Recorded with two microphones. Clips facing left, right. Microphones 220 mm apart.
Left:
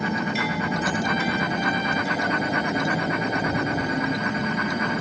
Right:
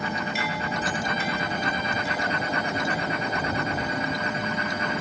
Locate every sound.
0.0 s a vehicle: 25° left (ahead or behind)